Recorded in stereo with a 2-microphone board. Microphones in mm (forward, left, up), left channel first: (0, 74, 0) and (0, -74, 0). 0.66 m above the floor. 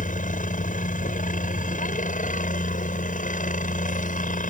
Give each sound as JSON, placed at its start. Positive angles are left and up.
{"t": 0.0, "sound": "a helicopter", "side_deg": 60}